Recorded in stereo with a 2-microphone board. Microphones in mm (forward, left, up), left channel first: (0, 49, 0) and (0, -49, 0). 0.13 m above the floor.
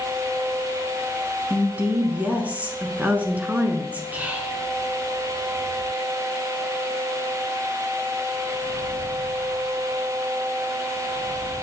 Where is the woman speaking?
15° right (ahead or behind), 1.1 m.